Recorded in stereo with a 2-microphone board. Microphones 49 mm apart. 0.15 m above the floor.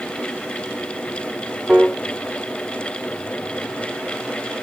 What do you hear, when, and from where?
1.7 s a piano: 15° right (ahead or behind), 1.5 m